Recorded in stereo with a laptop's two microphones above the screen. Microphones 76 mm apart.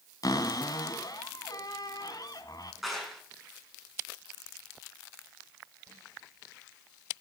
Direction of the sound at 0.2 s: 50° left (ahead or behind).